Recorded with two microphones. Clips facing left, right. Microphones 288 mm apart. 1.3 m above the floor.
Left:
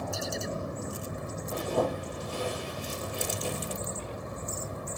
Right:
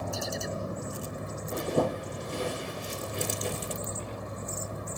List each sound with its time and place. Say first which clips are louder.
1.5 s a zipper: right 1 dB; 25° right (ahead or behind), 6.5 m